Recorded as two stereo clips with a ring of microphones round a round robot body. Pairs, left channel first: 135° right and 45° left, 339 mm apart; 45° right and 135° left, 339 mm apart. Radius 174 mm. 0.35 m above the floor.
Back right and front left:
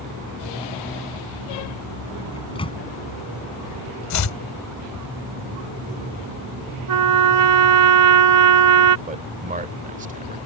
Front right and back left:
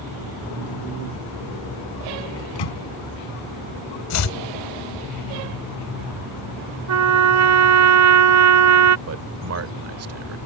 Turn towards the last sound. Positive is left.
turn(degrees=105)